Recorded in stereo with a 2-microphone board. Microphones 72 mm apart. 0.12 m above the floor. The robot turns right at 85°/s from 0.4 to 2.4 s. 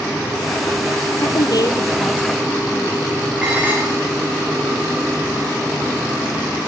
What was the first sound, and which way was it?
A woman speaking, 65° left.